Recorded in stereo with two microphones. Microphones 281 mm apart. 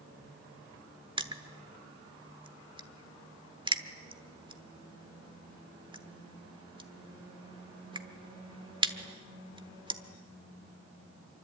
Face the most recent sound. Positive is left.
turn(degrees=-15)  # may be behind; listen again after turning